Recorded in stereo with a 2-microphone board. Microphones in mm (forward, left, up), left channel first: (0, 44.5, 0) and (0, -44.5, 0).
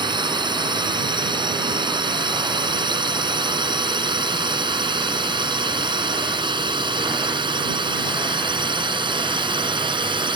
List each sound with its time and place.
0.0 s a drone: 60° right (ahead or behind); by 10.4 s 65° right (ahead or behind)